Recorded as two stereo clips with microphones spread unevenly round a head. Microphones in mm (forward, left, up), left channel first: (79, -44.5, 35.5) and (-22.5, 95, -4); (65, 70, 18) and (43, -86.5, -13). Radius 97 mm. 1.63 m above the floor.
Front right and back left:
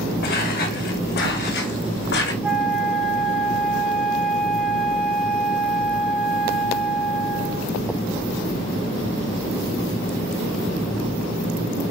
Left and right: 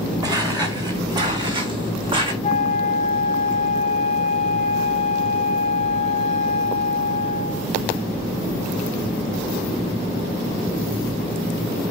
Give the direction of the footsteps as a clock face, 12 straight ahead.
1 o'clock.